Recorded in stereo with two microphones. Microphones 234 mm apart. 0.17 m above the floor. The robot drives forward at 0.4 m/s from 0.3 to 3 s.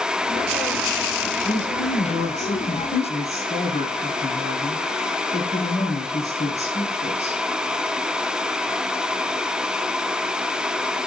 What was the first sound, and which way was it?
A woman speaking, 35° left (ahead or behind).